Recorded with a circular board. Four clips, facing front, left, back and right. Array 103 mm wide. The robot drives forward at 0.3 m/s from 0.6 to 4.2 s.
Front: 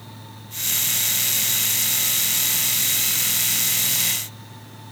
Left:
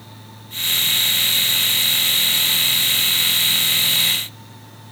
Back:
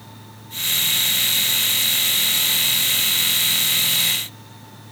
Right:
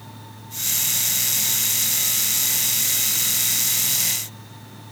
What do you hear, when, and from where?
Only background noise.